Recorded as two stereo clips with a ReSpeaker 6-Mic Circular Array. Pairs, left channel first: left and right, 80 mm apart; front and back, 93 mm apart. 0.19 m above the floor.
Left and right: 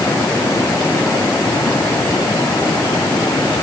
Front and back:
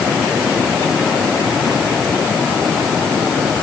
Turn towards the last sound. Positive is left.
No sound to turn to.